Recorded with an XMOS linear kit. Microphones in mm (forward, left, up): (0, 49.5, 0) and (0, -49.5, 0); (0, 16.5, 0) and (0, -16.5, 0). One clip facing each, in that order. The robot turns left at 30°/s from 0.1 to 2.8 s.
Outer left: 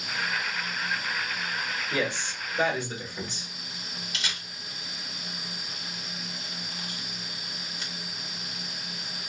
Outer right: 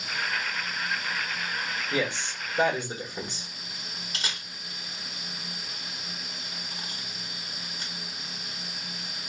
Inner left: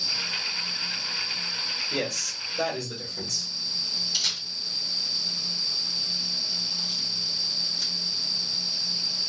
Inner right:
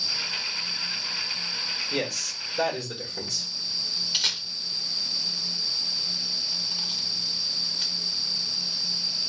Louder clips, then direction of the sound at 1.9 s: Even, even; 10° right (ahead or behind).